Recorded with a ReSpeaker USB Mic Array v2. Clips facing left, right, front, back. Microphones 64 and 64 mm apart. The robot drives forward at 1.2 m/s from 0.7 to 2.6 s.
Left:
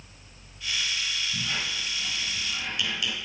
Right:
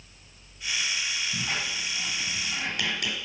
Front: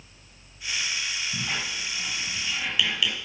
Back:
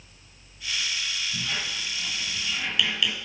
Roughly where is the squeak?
Ahead right.